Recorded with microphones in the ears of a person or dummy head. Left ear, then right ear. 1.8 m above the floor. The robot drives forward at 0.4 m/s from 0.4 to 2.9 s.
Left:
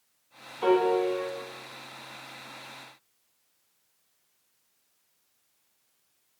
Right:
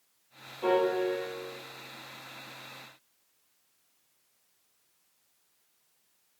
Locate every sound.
0.6 s a piano: 65° left (ahead or behind), 0.9 m